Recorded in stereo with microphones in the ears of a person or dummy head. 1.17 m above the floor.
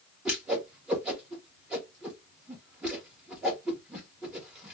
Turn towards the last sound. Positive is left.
turn(degrees=-5)  # may be behind; listen again after turning